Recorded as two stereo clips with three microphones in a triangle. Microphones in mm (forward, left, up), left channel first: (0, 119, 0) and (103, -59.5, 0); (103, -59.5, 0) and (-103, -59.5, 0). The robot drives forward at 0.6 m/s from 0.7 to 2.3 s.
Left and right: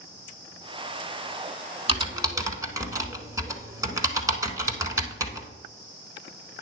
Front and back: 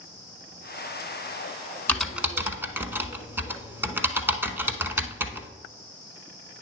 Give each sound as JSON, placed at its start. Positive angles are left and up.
{"t": 1.9, "sound": "typing on a keyboard", "azimuth_deg": -75, "distance_m": 0.8}